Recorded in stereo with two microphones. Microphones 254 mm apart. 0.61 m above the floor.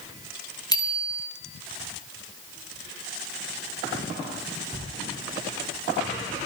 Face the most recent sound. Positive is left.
turn(degrees=15)  # may be behind; listen again after turning